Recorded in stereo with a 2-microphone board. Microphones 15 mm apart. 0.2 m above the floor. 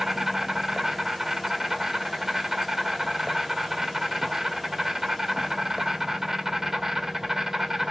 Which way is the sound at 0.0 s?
35° right (ahead or behind).